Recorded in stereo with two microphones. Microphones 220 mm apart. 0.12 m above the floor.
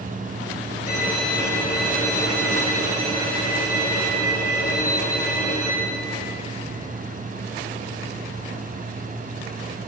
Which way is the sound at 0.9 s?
35° left (ahead or behind).